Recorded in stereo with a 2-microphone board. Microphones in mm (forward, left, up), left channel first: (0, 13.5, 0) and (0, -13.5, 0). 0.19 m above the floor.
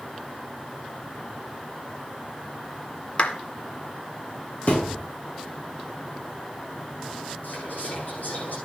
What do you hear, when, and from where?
3.2 s a clap: 45° left (ahead or behind), 1.6 m
4.7 s a thud: 50° left (ahead or behind), 5 m
7.4 s whispering: 85° left, 10 m